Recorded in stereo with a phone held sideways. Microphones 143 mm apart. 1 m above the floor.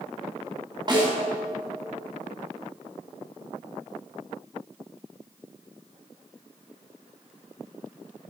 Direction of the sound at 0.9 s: 30° right (ahead or behind).